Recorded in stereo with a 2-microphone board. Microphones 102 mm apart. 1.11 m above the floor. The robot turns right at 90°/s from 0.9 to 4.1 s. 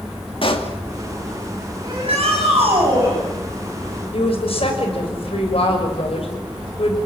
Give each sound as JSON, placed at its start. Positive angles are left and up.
{"t": 0.4, "sound": "a pop", "side_deg": 60, "distance_m": 2.5}
{"t": 1.8, "sound": "a shout", "azimuth_deg": -140, "distance_m": 8.5}
{"t": 4.1, "sound": "a woman speaking", "side_deg": 65, "distance_m": 6.0}